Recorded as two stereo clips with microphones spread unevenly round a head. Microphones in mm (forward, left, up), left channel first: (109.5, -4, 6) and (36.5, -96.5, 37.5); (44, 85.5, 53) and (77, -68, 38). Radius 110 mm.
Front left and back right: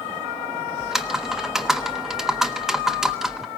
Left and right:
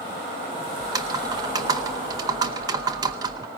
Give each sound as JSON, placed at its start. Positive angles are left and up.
{"t": 0.8, "sound": "typing on a keyboard", "azimuth_deg": -125, "distance_m": 0.7}